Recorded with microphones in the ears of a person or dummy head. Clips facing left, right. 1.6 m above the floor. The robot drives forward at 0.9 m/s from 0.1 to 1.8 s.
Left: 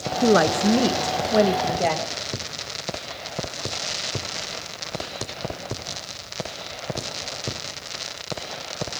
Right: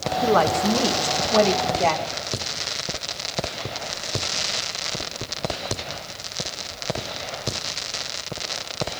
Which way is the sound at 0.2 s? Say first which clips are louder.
Left 2 dB; 30° left (ahead or behind).